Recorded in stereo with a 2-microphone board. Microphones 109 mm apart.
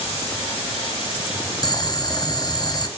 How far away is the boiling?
About 1.9 m.